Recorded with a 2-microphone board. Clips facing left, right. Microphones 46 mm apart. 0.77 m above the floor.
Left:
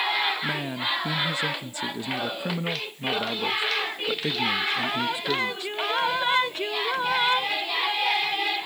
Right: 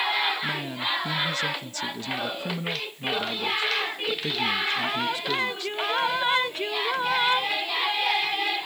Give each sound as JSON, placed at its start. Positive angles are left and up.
{"t": 0.4, "sound": "a man speaking", "side_deg": 20}